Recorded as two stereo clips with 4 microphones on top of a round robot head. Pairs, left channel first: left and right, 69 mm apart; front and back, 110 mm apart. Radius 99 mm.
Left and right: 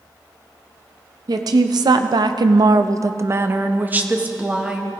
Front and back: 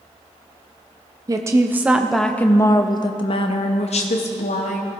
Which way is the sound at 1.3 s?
120° right.